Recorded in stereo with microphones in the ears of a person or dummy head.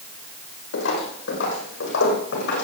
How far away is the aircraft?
No aircraft in this recording.